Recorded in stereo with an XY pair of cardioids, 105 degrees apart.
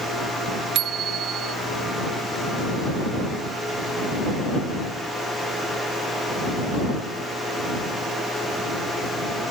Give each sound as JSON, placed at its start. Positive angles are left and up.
{"t": 0.8, "sound": "a bicycle bell", "azimuth_deg": -70}